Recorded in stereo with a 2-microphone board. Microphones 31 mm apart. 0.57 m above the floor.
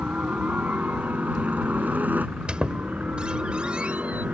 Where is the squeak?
35° right (ahead or behind).